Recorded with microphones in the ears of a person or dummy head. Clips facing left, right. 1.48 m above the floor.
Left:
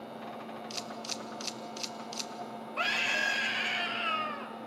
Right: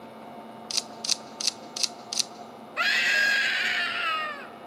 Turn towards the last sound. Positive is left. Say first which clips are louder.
# right 3 dB
turn(degrees=-15)  # may be behind; listen again after turning